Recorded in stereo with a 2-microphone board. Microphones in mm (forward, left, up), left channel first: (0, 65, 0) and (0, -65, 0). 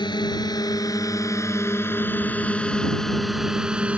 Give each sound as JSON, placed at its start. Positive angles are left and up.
{"t": 0.0, "sound": "a drone", "side_deg": 35}